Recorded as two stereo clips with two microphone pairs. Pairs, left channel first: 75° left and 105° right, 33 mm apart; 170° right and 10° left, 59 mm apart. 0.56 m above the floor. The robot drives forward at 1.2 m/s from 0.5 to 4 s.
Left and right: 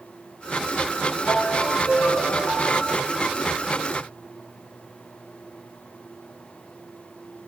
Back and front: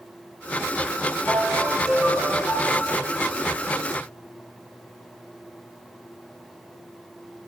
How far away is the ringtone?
About 6.5 m.